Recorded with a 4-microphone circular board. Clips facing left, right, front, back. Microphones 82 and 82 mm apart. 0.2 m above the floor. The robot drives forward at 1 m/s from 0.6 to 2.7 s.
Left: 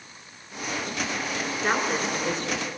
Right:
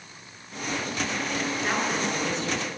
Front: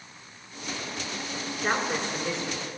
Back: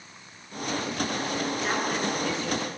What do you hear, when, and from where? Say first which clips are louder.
1.6 s a woman speaking: left 4 dB, front 4 dB; 45° left, 2.5 m; by 2.7 s 75° left, 1.8 m